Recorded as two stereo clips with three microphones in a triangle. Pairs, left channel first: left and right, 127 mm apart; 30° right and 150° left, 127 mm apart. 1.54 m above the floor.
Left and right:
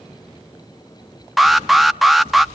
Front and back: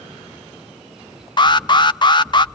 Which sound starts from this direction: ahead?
An alarm, at 1.4 s.